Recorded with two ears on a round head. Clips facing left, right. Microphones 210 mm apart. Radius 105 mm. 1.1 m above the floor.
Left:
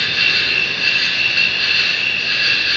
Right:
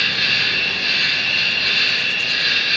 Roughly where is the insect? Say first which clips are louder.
Left 1 dB; left.